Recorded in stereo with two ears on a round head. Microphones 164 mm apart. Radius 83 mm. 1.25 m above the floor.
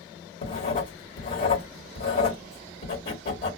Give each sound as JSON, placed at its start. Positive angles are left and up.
{"t": 0.4, "sound": "writing", "side_deg": 50, "distance_m": 1.4}